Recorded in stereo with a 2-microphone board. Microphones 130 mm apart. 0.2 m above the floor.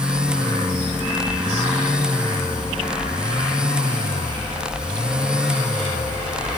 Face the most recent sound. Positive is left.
No sound to turn to.